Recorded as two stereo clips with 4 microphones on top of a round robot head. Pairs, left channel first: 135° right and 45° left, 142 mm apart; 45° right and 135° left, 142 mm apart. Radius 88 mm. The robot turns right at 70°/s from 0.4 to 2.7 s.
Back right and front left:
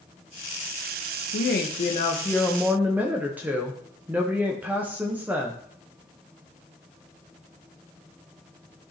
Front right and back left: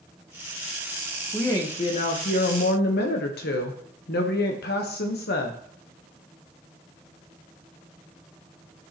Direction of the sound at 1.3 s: 130° right.